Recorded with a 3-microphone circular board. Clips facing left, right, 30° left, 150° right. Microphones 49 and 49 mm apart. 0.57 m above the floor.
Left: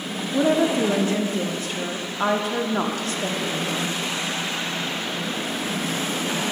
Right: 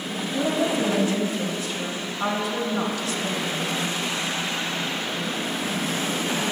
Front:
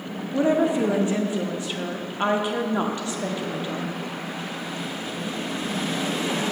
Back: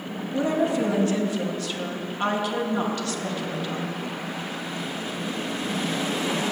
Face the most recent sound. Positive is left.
turn(degrees=90)